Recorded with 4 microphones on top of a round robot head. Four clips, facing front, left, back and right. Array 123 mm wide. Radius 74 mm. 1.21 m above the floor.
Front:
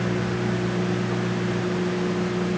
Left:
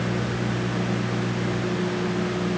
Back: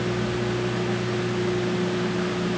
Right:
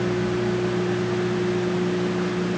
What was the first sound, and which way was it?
Only background noise.